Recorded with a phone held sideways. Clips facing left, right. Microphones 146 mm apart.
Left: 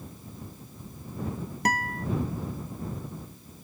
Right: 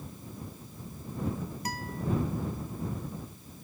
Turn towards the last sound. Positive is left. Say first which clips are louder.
# left 11 dB
turn(degrees=75)  # may be behind; listen again after turning